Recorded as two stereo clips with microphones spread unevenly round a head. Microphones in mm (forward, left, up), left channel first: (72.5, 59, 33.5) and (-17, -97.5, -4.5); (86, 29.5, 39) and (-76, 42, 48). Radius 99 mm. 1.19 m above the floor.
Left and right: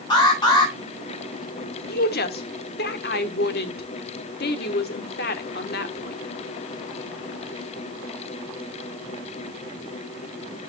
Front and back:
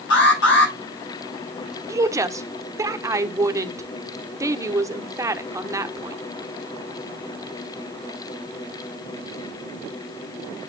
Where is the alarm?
5° right, 7 m.